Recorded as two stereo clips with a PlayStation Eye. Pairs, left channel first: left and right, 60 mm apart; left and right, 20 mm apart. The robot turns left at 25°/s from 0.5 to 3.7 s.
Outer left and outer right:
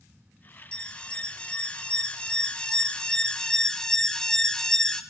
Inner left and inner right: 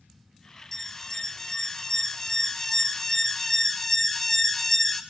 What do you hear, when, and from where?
0.7 s an alarm: 20° left (ahead or behind), 0.7 m; by 5.0 s 10° left (ahead or behind), 0.7 m